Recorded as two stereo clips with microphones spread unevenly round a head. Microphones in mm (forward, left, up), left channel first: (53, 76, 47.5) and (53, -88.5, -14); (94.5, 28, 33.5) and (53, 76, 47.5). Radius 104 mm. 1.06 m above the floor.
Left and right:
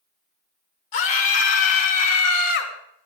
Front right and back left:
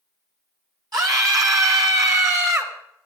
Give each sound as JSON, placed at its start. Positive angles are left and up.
{"t": 0.9, "sound": "a scream", "azimuth_deg": 110, "distance_m": 3.5}